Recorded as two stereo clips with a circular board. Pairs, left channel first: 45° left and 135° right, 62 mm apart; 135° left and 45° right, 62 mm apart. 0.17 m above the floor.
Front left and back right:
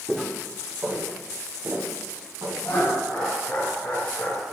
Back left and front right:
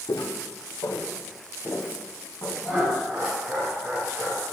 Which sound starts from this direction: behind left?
Footsteps, at 0.1 s.